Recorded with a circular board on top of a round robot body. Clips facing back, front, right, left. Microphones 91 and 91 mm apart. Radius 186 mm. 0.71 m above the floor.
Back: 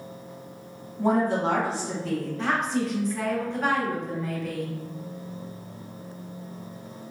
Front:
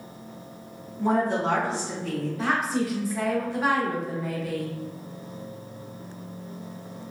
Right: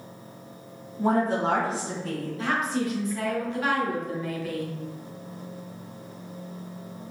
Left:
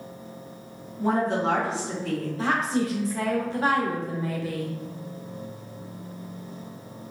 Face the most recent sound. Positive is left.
turn(degrees=80)